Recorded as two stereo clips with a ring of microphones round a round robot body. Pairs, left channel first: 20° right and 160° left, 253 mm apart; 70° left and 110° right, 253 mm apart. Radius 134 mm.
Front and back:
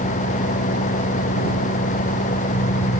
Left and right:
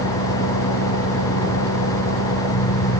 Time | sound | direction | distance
0.0 | an engine running | 40° left | ?